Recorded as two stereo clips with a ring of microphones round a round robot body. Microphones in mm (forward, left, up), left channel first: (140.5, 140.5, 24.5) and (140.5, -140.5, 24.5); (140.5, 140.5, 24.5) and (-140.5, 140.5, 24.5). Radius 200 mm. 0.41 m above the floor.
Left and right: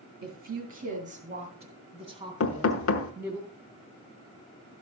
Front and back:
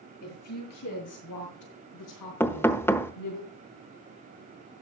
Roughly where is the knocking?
Left.